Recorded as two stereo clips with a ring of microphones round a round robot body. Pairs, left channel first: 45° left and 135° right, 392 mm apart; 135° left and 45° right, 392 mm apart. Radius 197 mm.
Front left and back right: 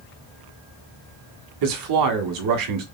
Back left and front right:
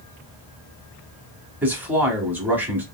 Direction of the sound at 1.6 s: 130° right.